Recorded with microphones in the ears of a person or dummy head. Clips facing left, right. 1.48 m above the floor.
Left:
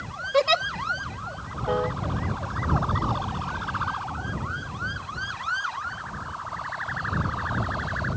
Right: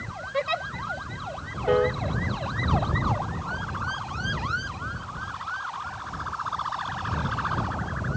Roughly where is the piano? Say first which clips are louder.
Right 5 dB; right.